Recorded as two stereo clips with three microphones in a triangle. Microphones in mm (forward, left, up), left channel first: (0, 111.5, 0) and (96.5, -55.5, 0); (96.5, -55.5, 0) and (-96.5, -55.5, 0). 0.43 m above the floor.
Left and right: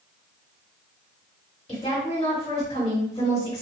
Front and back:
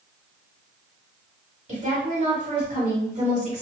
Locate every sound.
1.7 s a woman speaking: 160° left, 1.6 m